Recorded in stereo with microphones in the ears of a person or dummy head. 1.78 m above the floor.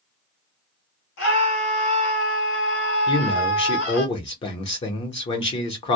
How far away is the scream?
About 1.4 m.